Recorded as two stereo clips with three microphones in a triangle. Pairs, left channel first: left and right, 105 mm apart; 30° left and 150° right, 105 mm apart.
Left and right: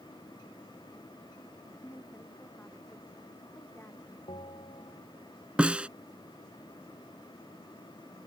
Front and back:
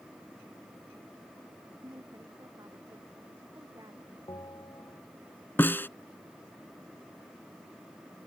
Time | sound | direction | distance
1.8 | a woman speaking | 155° left | ?
4.3 | a bell | 75° left | ?
5.6 | a snare drum | 25° right | ?